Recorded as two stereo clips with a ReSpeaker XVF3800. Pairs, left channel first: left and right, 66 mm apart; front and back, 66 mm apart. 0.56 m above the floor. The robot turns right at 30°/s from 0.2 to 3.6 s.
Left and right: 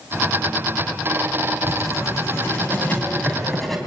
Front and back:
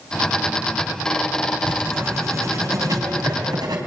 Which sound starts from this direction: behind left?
Writing, at 1.6 s.